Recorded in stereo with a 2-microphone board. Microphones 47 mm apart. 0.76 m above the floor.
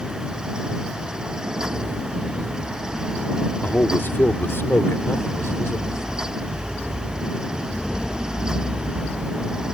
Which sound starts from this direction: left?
A man speaking, at 3.6 s.